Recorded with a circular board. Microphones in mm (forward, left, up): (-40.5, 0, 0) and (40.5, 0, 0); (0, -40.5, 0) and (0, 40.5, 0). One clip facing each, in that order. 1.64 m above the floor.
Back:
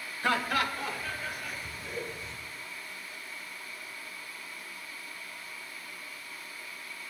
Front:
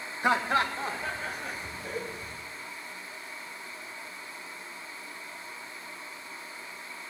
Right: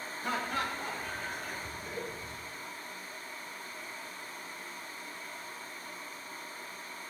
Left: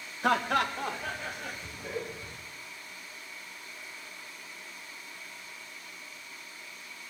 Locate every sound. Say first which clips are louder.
0.2 s laughter: front 3 dB, left 8 dB; 70° left, 1.7 m; by 2.4 s 50° left, 3.5 m